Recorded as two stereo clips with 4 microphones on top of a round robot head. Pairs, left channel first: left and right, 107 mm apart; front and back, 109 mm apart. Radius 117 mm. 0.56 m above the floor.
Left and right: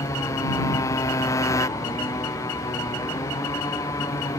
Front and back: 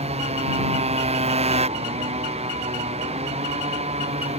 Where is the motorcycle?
155° left.